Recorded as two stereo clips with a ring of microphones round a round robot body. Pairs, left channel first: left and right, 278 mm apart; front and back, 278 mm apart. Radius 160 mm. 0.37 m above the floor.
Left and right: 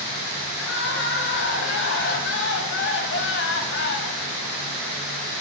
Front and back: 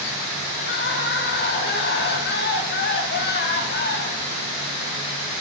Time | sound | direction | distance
0.6 | crying | 50° left | 1.9 m